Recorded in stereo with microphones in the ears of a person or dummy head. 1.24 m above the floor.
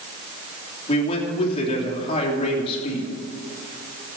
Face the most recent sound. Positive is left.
turn(degrees=30)  # may be behind; listen again after turning